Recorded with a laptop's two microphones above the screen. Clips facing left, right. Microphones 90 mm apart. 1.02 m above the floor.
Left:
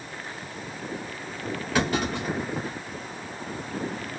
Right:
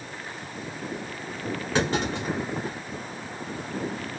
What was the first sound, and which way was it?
A clunk, 25° right (ahead or behind).